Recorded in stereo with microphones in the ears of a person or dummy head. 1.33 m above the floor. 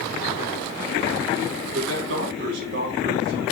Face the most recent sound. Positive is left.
turn(degrees=-55)  # may be behind; listen again after turning